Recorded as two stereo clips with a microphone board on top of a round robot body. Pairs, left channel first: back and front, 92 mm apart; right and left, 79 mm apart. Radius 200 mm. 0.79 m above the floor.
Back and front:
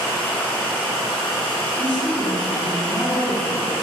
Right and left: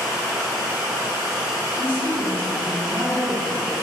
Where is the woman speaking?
150° right, 2.0 m.